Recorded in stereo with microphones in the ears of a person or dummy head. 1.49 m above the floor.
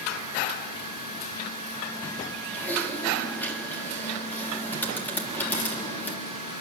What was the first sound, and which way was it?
Typing on a keyboard, 15° left (ahead or behind).